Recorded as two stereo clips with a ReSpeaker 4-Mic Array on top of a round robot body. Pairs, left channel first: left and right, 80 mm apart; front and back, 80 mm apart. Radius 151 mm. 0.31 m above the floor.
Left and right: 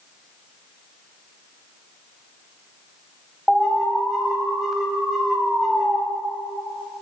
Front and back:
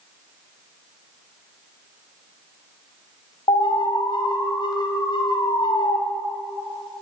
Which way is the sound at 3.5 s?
5° right.